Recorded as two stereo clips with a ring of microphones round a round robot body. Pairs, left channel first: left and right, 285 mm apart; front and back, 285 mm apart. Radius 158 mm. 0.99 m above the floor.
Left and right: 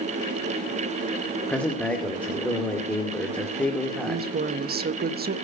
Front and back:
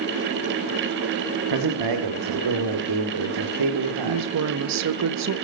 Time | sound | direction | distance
1.5 | a man speaking | 175° left | 2.5 m
4.1 | a woman speaking | 150° right | 1.3 m